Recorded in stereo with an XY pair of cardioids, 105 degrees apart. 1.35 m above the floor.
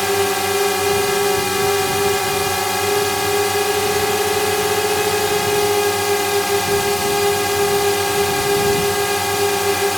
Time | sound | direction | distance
0.0 | a drone | 5° left | ?